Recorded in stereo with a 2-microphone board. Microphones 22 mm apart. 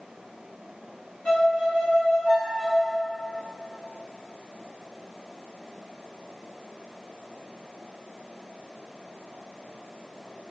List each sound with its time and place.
1.2 s a violin: 70° left (ahead or behind), 1.5 m